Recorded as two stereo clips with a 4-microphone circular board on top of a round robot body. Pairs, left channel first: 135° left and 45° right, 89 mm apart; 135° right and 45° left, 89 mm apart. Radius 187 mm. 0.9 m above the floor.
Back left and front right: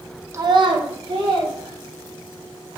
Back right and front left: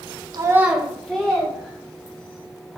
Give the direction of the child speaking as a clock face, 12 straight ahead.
12 o'clock.